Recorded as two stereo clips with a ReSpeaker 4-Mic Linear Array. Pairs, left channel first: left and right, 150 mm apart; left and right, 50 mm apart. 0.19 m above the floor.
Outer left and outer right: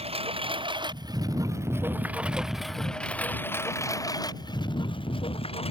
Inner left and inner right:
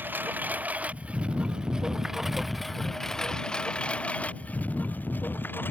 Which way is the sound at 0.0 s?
40° right (ahead or behind).